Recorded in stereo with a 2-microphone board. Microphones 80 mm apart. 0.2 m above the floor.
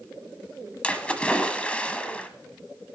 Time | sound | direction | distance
0.8 | a splash | 15° left (ahead or behind) | 1.1 m